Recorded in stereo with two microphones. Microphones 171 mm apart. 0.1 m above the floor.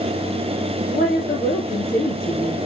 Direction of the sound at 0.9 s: 60° left (ahead or behind).